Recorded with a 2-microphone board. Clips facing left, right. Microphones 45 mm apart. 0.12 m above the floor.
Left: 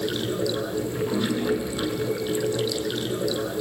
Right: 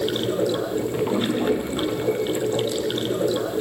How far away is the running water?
About 3 m.